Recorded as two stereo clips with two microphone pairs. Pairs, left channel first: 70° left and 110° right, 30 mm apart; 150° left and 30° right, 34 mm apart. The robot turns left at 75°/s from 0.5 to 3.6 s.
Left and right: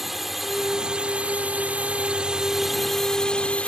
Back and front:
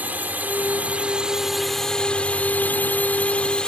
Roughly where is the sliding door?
No sliding door in this recording.